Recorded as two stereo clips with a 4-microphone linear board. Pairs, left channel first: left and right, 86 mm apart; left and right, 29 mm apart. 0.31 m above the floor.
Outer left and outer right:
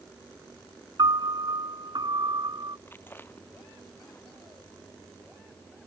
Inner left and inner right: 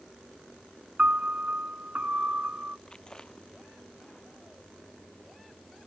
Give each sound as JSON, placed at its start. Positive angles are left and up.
{"t": 1.0, "sound": "a piano", "side_deg": -55}
{"t": 2.9, "sound": "chewing", "side_deg": 25}